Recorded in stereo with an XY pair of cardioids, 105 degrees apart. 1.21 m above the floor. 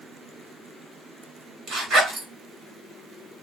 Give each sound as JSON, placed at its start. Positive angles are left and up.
{"t": 1.7, "sound": "a zipper", "azimuth_deg": -65, "distance_m": 3.5}